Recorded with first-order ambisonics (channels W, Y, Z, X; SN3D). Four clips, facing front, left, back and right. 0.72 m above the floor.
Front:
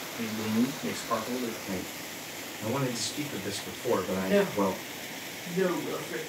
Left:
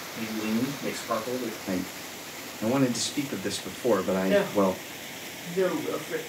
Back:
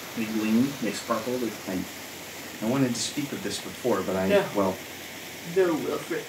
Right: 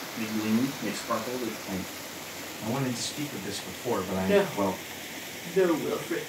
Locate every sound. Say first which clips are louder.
0.2 s a man speaking: right 1 dB, back 5 dB; 175° right, 1.5 m
1.7 s a man speaking: left 3 dB, back 3 dB; 140° left, 1.5 m
4.2 s a woman speaking: left 1 dB, back 4 dB; 150° right, 1.5 m